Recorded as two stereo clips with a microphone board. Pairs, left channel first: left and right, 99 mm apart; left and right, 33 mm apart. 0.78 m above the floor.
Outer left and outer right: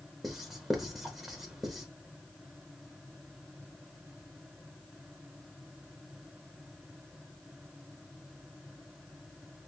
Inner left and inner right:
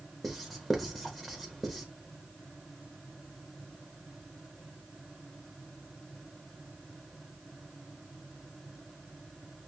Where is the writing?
Centre (ahead or behind), 0.8 m.